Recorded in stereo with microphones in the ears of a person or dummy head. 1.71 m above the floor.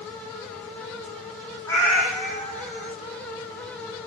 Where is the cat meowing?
10° left (ahead or behind), 1.7 m; by 3.0 s 5° right (ahead or behind), 1.5 m.